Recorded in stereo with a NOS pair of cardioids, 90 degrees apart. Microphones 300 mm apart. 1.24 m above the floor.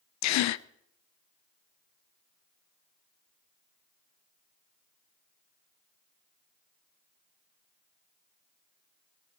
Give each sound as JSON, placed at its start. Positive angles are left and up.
{"t": 0.2, "sound": "a gasp", "azimuth_deg": 65, "distance_m": 0.5}